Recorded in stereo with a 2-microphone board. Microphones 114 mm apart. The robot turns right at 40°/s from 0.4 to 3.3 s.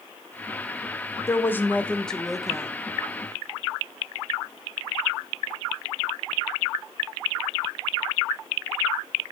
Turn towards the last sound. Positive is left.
turn(degrees=-140)